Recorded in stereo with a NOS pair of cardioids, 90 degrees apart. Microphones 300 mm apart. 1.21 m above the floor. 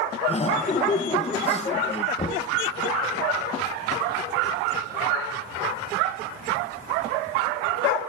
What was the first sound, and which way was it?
Laughter, 25° left.